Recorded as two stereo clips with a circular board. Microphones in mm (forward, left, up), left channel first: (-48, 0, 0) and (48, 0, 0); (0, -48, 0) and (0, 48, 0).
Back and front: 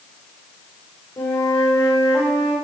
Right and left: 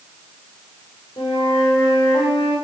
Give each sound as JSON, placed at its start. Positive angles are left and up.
{"t": 1.2, "sound": "a flute", "azimuth_deg": -140, "distance_m": 6.5}